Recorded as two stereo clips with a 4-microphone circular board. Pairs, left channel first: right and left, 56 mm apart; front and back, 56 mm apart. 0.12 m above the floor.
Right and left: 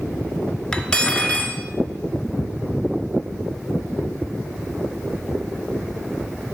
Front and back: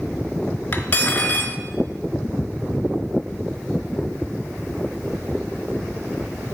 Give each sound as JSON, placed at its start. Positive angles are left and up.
{"t": 0.7, "sound": "cutlery clinking", "azimuth_deg": -35, "distance_m": 0.9}